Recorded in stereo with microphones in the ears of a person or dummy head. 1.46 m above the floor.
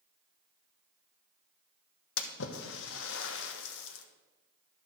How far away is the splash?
About 1.2 m.